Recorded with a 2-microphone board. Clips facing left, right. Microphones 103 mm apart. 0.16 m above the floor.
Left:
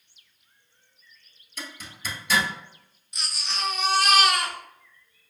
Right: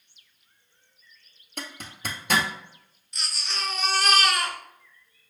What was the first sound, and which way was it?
A zipper, 60° right (ahead or behind).